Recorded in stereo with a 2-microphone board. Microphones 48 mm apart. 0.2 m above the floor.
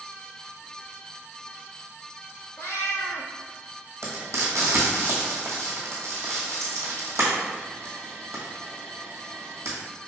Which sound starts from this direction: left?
A cat meowing, at 2.6 s.